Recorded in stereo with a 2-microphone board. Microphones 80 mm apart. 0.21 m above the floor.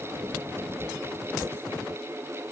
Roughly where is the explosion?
I don't hear an explosion.